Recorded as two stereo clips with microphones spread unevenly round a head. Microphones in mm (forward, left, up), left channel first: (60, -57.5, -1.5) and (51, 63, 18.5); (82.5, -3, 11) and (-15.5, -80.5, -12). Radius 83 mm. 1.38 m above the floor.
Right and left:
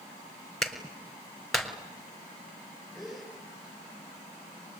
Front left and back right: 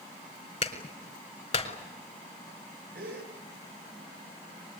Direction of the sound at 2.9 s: 175° right.